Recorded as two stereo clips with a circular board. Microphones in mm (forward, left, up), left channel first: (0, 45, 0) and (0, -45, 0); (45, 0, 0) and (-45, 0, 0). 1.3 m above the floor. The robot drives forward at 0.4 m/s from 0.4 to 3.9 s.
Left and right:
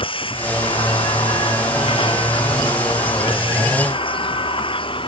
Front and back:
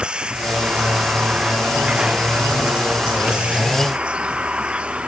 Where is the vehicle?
100° left.